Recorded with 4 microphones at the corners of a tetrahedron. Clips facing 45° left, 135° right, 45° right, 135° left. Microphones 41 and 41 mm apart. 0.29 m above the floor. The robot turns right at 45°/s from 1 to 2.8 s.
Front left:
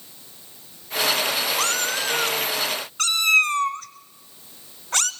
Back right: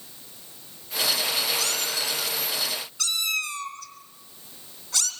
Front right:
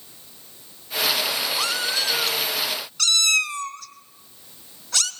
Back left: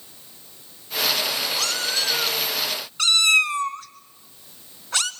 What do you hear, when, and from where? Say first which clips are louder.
1.6 s a cat meowing: front left 5 dB, front right 1 dB; 20° left, 1.6 m; by 5.1 s 75° left, 1.6 m